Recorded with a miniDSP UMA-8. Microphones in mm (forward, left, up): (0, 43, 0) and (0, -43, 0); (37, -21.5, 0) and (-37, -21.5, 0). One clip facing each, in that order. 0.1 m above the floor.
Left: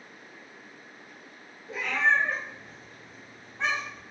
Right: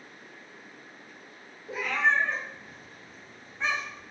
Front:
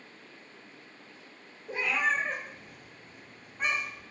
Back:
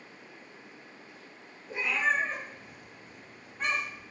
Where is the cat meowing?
15° right, 1.0 m; by 4.0 s 85° left, 1.1 m.